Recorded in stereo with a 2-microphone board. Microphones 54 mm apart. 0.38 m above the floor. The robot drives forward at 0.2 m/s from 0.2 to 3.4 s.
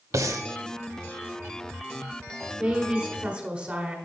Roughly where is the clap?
I don't hear a clap.